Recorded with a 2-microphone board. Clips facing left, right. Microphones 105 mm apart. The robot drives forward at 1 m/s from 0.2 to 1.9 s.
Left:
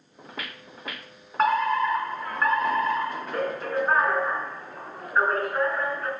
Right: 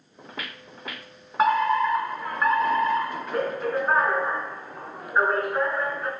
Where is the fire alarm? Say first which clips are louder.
Right 2 dB; 5° right (ahead or behind), 2.5 m.